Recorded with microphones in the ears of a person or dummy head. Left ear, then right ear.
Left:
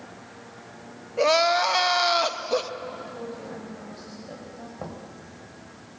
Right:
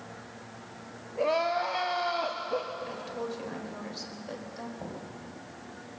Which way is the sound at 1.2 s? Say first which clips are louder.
Left 7 dB; 40° left (ahead or behind).